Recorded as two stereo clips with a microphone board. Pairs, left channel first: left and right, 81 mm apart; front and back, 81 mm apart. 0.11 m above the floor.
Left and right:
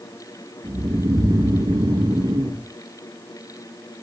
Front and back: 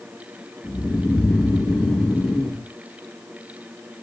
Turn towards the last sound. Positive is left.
turn(degrees=-80)